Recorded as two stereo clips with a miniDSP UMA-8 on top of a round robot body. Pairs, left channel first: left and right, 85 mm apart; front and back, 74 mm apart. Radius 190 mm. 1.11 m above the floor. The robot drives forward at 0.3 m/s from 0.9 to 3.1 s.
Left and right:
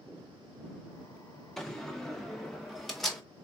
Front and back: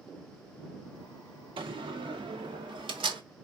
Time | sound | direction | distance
1.6 | a door slam | 175° left | 0.5 m